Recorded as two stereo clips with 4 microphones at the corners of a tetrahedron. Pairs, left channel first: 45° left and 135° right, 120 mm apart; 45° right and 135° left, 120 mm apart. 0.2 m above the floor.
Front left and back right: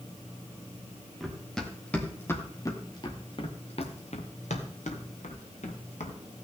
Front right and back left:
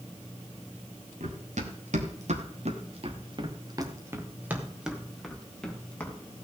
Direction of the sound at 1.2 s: 135° left.